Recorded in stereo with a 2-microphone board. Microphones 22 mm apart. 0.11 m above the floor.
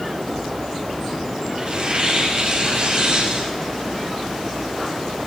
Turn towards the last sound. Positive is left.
turn(degrees=-50)  # may be behind; listen again after turning